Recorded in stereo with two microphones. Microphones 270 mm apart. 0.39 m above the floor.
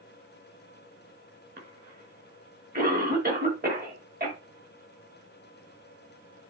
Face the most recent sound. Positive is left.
turn(degrees=-35)  # may be behind; listen again after turning